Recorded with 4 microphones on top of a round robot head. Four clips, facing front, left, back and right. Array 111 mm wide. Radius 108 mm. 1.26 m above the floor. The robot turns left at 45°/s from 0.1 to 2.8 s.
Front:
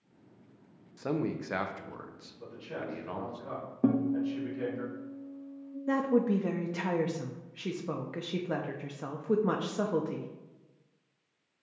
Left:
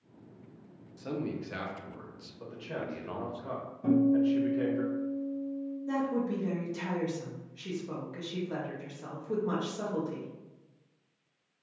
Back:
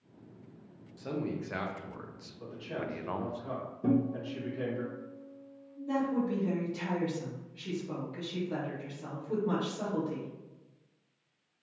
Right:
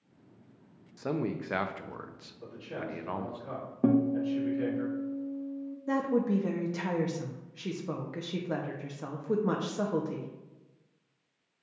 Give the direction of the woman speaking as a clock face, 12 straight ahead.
1 o'clock.